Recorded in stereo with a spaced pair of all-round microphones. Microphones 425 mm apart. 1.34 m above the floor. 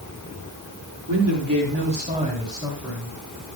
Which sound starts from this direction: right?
A man speaking, at 1.1 s.